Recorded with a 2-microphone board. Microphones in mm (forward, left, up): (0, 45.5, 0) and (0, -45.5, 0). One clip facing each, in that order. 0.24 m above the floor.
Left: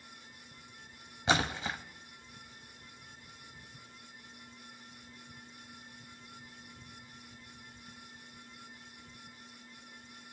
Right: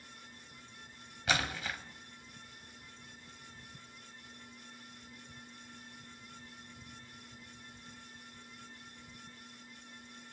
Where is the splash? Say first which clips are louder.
Left 4 dB; 25° left (ahead or behind), 1.1 m.